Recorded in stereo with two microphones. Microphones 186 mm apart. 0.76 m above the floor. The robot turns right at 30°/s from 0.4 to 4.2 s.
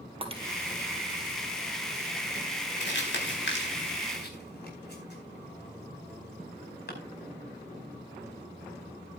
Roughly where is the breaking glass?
Right.